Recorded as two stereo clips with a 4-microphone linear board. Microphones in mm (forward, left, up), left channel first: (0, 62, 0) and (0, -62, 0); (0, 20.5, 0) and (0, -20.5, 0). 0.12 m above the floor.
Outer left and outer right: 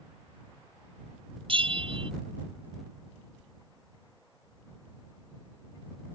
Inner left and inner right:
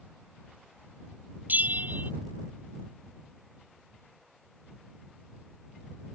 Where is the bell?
45° right (ahead or behind).